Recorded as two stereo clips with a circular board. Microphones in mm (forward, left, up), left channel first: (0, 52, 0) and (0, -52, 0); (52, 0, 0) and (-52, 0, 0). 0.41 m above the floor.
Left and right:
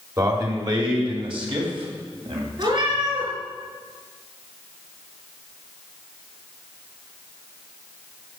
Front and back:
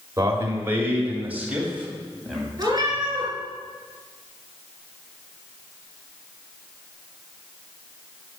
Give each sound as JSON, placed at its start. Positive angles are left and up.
{"t": 0.2, "sound": "a man speaking", "azimuth_deg": -130, "distance_m": 1.8}
{"t": 2.6, "sound": "a cat meowing", "azimuth_deg": -130, "distance_m": 3.0}